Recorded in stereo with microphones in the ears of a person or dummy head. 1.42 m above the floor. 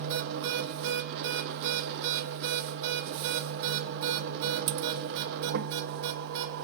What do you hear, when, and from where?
0.0 s a machine running: 60° right (ahead or behind), 1.0 m